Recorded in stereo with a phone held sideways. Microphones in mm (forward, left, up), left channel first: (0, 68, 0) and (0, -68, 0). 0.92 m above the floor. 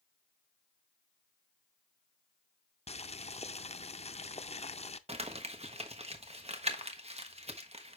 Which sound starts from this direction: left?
Boiling, at 2.9 s.